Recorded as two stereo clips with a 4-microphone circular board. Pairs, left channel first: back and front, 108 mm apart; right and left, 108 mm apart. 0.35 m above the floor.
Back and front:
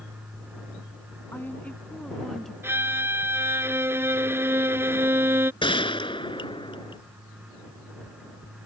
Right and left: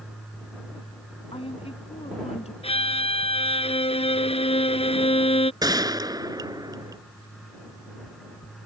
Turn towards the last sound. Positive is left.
turn(degrees=140)